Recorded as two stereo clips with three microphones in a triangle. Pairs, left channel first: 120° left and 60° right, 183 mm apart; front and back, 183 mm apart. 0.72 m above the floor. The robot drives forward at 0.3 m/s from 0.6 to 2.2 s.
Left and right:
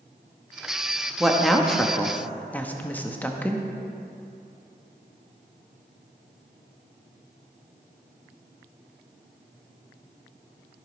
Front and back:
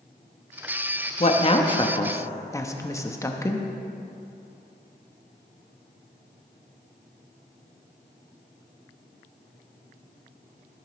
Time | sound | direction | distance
1.2 | a woman speaking | 25° left | 0.9 m